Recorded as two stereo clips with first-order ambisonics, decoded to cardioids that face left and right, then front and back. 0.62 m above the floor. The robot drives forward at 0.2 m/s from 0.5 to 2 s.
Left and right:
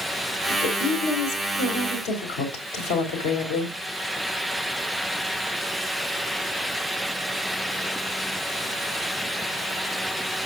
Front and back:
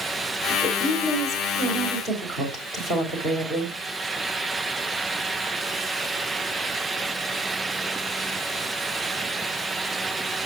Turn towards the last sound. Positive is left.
turn(degrees=115)